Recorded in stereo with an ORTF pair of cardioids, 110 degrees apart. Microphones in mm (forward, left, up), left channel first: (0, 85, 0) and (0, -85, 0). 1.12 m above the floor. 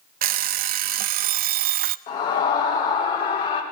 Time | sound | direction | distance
0.2 | an alarm clock | 65° right | 0.5 m
2.1 | a scream | 65° left | 5.5 m